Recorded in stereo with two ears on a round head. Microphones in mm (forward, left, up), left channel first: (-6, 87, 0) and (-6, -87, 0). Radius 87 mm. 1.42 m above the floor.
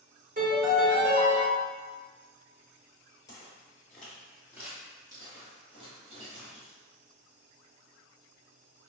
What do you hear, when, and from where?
0.4 s a piano: 45° right (ahead or behind), 1.6 m
3.3 s footsteps: 20° left (ahead or behind), 1.4 m; by 6.7 s 40° right (ahead or behind), 2.0 m